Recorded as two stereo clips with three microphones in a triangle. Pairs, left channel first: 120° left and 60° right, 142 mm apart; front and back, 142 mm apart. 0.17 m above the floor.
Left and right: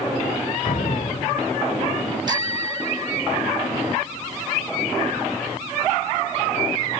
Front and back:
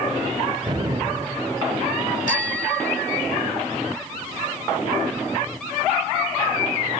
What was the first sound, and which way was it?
An explosion, 130° left.